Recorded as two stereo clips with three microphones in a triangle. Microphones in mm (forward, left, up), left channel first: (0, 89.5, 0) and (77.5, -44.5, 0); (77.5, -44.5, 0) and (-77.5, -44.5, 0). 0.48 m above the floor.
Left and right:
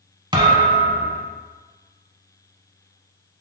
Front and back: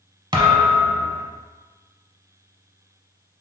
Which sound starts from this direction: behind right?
A thud, at 0.3 s.